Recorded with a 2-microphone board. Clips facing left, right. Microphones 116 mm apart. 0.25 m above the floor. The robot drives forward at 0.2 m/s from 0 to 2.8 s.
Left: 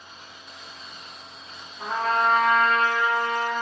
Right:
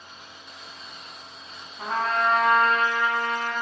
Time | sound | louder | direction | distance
1.8 | a trumpet | left 1 dB | 55° right (ahead or behind) | 1.0 m